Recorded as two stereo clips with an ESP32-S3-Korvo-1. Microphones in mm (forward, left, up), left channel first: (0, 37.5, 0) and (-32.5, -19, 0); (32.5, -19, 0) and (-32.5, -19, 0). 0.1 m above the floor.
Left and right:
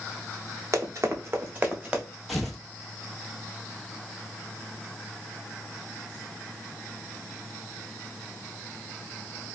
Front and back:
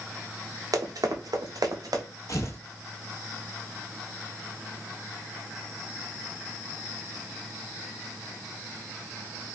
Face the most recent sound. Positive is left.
turn(degrees=-25)